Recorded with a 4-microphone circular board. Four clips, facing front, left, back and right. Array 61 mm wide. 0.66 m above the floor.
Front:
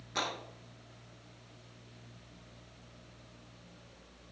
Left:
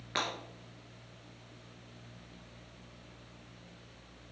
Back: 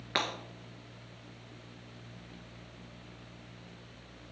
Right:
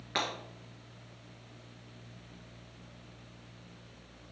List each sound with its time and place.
0.1 s breaking glass: straight behind, 1.6 m